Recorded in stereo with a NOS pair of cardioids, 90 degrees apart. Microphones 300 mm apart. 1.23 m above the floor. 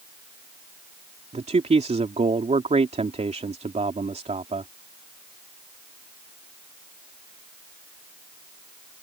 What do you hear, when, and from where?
1.3 s a man speaking: 20° right